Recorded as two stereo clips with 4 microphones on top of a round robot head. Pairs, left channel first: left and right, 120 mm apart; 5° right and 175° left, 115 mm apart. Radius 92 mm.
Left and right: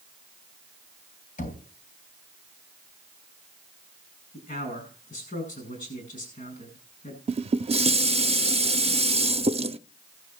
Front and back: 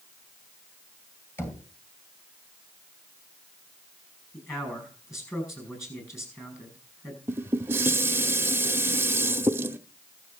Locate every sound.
1.4 s knocking: 60° left, 3.5 m
4.3 s a man speaking: 60° left, 9.5 m
7.3 s dishes clattering: 115° right, 0.6 m